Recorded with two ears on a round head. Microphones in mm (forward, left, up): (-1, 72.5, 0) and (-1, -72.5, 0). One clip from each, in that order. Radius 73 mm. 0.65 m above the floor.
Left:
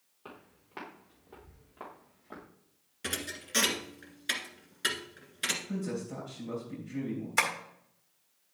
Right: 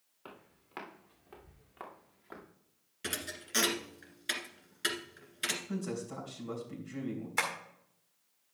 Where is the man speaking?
35° right (ahead or behind), 3 m.